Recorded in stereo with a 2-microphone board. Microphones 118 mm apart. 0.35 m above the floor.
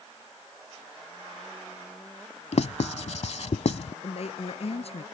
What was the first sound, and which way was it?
Writing, 65° left (ahead or behind).